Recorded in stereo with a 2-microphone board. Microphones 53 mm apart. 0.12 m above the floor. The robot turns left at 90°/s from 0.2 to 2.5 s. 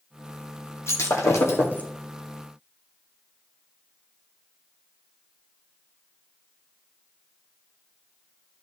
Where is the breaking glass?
120° left, 2 m; by 1.9 s 25° left, 2 m.